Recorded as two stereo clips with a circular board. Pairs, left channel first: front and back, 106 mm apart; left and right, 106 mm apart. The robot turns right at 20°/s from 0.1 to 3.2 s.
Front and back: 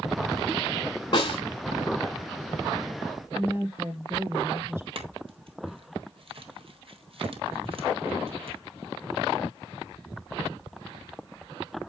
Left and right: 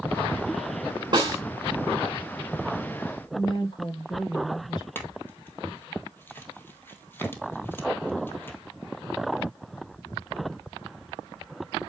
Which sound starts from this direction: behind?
A clink, at 5.0 s.